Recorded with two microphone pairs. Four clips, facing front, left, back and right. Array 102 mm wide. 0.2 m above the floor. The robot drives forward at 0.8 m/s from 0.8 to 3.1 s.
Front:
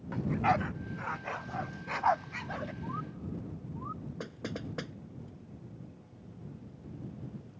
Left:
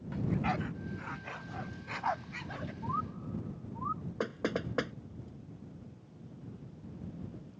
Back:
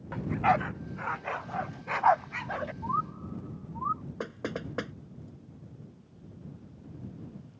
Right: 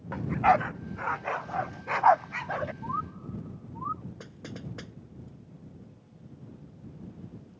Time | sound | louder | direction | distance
0.1 | a dog barking | right 10 dB, back 3 dB | 105° right | ?
2.8 | a bird | right 2 dB, back 8 dB | 160° right | ?
4.2 | knocking | left 9 dB, back 4 dB | 120° left | ?